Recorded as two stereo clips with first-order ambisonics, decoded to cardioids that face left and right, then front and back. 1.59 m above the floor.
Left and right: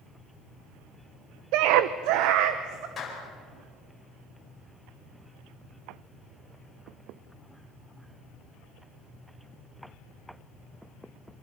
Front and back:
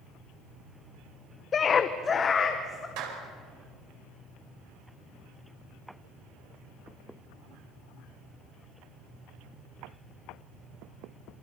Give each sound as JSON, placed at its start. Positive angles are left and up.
{"t": 1.5, "sound": "a scream", "azimuth_deg": -65, "distance_m": 0.6}
{"t": 3.0, "sound": "a clap", "azimuth_deg": 160, "distance_m": 4.5}